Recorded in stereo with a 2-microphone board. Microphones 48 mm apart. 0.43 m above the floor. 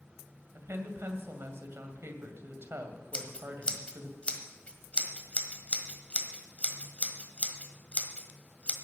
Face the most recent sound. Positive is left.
turn(degrees=25)  # may be behind; listen again after turning